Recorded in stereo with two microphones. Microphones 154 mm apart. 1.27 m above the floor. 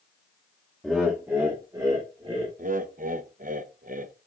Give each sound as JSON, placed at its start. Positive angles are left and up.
{"t": 0.8, "sound": "laughter", "side_deg": 0, "distance_m": 1.1}
{"t": 2.6, "sound": "laughter", "side_deg": -60, "distance_m": 0.7}